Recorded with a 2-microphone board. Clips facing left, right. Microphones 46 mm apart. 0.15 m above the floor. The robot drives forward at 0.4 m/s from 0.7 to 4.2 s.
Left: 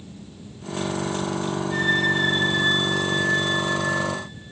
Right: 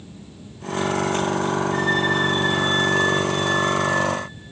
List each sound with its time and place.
1.7 s a flute: 50° left (ahead or behind), 1.7 m; by 3.9 s 35° left (ahead or behind), 2.5 m